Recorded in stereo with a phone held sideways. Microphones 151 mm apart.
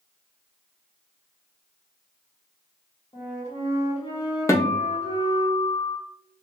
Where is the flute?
40° left (ahead or behind), 1.6 m.